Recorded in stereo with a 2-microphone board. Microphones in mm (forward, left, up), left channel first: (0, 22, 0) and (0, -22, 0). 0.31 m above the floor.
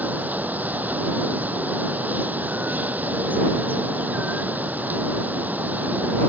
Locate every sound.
0.0 s running water: 40° right (ahead or behind)